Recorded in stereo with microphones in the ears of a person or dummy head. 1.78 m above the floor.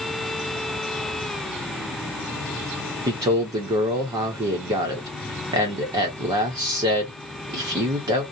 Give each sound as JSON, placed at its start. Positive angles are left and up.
{"t": 3.1, "sound": "a man speaking", "side_deg": -20, "distance_m": 0.8}